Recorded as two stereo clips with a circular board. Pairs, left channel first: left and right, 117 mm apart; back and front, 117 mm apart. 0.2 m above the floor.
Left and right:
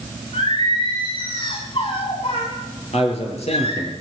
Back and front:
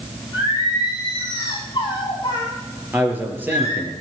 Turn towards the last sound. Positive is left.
turn(degrees=70)